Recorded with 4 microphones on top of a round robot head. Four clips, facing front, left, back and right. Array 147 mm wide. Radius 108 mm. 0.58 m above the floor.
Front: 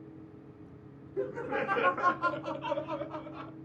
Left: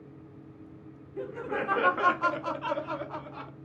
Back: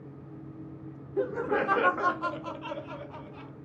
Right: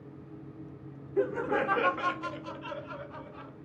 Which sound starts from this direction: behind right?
Laughter, at 1.2 s.